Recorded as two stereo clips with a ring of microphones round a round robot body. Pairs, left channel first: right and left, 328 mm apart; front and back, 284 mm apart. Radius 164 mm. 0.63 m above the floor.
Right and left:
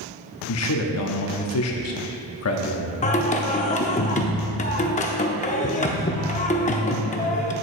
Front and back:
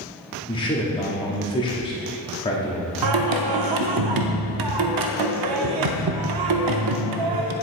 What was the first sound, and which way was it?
A man speaking, 70° right.